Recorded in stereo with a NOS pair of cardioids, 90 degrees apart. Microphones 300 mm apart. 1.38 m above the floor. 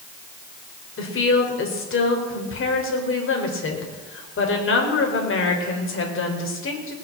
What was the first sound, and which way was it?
A woman speaking, 45° left.